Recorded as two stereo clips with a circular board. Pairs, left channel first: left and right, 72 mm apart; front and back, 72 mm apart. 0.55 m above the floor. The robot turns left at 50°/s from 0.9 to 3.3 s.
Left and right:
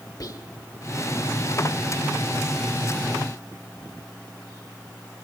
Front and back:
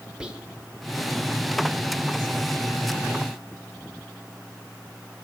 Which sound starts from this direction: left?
Whispering, at 0.2 s.